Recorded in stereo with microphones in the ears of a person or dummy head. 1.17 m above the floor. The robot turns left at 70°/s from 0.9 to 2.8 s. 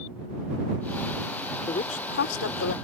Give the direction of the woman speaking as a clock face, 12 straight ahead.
7 o'clock.